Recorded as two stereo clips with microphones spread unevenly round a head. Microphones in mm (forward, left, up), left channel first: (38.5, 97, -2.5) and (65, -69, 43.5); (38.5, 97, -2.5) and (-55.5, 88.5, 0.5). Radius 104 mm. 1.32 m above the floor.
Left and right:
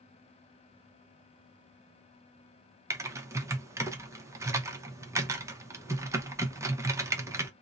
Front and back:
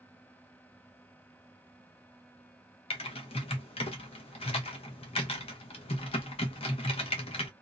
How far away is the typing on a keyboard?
About 0.7 m.